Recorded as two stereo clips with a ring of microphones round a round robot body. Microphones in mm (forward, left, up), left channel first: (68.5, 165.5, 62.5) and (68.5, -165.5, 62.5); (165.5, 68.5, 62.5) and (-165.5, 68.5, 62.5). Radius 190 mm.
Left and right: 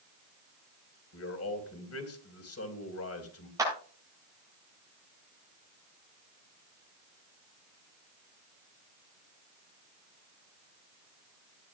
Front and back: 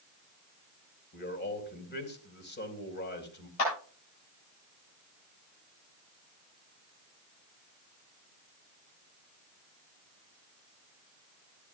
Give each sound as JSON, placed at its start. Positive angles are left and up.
{"t": 1.1, "sound": "a man speaking", "azimuth_deg": 55, "distance_m": 2.5}
{"t": 3.6, "sound": "a clap", "azimuth_deg": -10, "distance_m": 9.5}